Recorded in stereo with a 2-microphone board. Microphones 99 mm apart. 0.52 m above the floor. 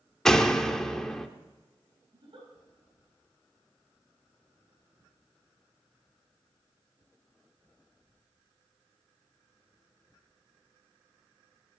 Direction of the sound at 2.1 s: 60° right (ahead or behind).